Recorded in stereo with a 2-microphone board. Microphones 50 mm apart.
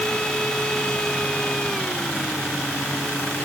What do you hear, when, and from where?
Only background noise.